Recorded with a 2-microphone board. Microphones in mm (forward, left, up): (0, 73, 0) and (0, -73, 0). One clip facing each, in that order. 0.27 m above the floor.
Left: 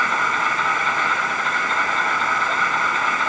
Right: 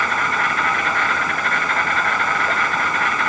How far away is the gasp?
I don't hear a gasp.